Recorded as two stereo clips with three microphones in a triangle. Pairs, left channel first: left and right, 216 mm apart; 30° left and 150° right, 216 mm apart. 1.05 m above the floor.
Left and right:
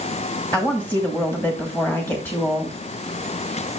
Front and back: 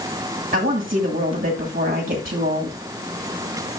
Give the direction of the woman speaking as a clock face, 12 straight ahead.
6 o'clock.